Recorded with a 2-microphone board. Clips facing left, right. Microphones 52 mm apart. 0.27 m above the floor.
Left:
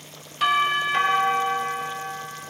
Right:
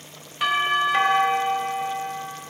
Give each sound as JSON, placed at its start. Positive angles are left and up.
{"t": 0.4, "sound": "a doorbell", "side_deg": -15, "distance_m": 1.7}